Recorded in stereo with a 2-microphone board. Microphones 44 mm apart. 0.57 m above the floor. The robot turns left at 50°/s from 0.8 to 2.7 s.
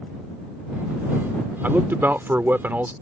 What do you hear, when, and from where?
1.6 s a man speaking: 65° right; by 2.9 s 115° right